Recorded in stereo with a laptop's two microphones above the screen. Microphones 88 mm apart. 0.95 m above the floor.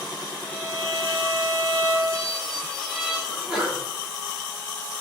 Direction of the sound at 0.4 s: 10° left (ahead or behind).